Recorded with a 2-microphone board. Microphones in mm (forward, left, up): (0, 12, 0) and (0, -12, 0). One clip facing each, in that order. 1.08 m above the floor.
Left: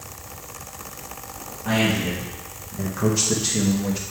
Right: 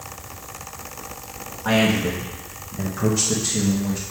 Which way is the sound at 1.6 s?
65° right (ahead or behind).